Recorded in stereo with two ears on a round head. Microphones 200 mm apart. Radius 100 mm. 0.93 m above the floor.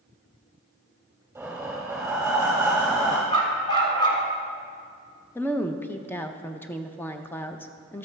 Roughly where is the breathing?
Centre.